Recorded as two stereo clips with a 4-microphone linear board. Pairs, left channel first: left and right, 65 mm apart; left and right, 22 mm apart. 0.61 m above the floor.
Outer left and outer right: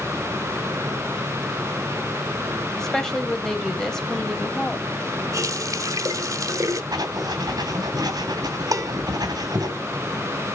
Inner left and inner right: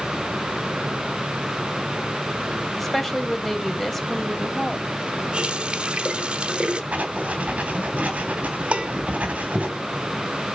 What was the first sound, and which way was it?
A woman speaking, 10° left (ahead or behind).